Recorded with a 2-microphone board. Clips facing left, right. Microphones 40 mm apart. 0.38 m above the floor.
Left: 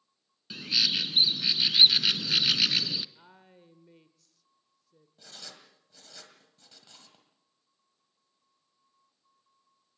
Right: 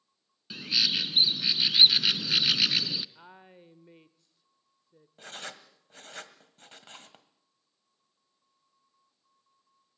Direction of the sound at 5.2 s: 50° right (ahead or behind).